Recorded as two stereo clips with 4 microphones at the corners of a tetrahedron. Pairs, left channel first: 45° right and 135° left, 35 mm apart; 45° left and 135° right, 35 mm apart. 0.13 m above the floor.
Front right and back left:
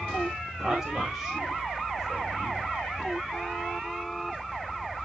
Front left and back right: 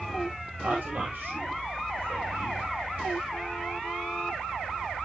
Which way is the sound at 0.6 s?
145° right.